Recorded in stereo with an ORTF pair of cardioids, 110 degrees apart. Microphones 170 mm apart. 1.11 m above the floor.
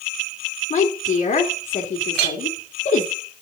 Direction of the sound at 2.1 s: 70° right.